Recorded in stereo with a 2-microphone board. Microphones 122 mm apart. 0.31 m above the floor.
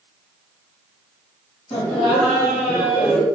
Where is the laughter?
55° left (ahead or behind), 2.5 m.